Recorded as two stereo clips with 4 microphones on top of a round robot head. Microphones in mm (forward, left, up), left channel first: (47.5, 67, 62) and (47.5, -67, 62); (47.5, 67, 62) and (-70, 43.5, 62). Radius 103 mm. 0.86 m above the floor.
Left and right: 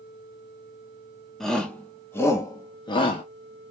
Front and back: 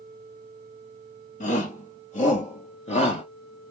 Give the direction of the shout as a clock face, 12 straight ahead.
12 o'clock.